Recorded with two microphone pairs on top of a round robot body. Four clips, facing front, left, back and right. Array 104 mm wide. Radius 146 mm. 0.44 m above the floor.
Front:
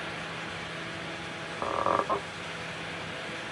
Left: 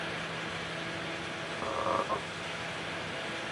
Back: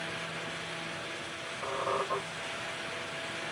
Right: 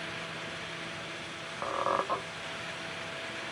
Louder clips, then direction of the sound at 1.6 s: Right 1 dB, front 5 dB; 30° right.